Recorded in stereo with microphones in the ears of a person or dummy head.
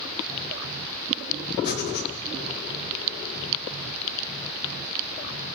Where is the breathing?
60° left (ahead or behind), 3.5 m.